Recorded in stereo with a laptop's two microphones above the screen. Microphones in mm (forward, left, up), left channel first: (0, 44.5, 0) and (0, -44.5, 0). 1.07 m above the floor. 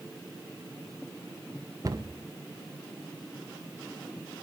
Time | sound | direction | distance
1.8 | a cupboard door | 45° right (ahead or behind) | 1.3 m